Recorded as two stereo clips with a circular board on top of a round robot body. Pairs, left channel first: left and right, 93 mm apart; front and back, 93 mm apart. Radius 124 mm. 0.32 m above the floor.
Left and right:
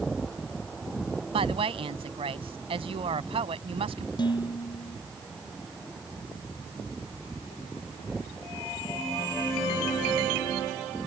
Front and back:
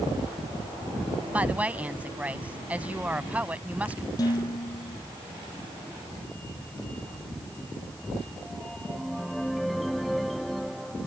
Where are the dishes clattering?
50° left.